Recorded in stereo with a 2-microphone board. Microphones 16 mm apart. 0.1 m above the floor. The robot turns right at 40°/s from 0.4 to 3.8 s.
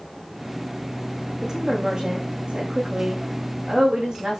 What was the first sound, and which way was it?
A woman speaking, 140° right.